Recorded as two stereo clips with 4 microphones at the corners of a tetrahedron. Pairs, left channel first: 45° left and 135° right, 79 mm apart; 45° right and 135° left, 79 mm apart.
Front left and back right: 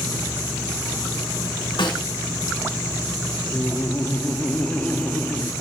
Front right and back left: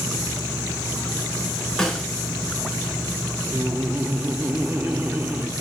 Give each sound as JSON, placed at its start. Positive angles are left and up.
{"t": 1.8, "sound": "a snare drum", "azimuth_deg": 35, "distance_m": 4.5}
{"t": 3.5, "sound": "laughter", "azimuth_deg": 100, "distance_m": 0.9}